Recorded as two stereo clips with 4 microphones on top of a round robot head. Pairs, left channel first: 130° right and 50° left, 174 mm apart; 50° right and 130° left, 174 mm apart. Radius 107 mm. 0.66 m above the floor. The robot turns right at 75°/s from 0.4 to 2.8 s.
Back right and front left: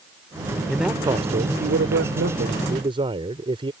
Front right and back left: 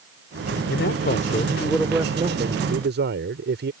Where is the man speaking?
45° right; by 3.7 s 110° left.